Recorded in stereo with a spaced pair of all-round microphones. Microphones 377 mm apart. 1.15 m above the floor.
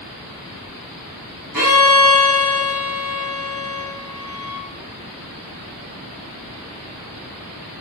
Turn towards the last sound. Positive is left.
turn(degrees=-70)  # may be behind; listen again after turning